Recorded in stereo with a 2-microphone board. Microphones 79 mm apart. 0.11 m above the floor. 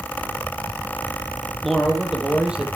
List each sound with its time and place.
1.6 s a man speaking: centre (ahead or behind), 3 m; by 2.7 s 15° right (ahead or behind), 3.5 m